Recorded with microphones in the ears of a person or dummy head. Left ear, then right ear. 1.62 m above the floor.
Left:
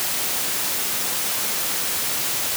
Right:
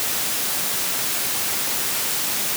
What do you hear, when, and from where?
Only background noise.